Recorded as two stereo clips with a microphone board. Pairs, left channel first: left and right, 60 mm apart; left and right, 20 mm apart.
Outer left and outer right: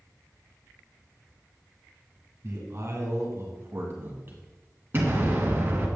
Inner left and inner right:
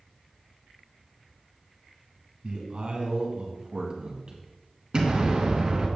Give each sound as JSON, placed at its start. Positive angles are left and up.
{"t": 2.4, "sound": "a man speaking", "side_deg": -50, "distance_m": 2.5}
{"t": 4.9, "sound": "an explosion", "side_deg": -35, "distance_m": 2.0}